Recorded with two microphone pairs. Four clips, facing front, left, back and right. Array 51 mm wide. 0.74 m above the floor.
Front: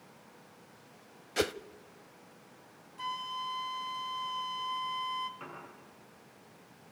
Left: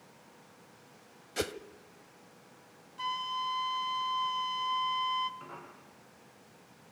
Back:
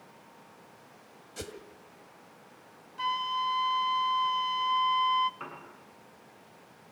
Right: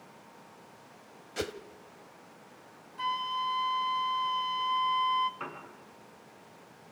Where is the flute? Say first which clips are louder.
Right 3 dB, back 7 dB; 150° right, 0.7 m.